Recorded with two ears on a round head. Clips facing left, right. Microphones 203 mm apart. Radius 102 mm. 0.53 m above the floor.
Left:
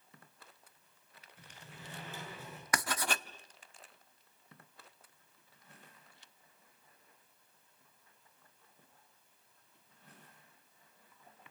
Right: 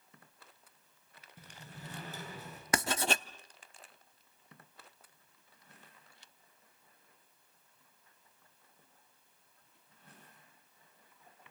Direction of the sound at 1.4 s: 35° right (ahead or behind).